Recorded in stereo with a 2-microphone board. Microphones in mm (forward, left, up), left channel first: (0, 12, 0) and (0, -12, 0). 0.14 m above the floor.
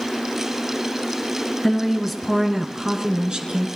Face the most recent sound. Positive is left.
turn(degrees=-45)  # may be behind; listen again after turning